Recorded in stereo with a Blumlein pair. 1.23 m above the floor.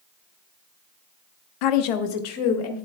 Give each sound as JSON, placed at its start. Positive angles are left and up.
{"t": 1.6, "sound": "a woman speaking", "azimuth_deg": 40, "distance_m": 0.5}